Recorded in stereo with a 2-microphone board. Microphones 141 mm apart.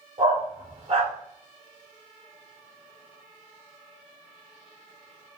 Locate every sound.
0.2 s a dog barking: 50° right (ahead or behind), 1.6 m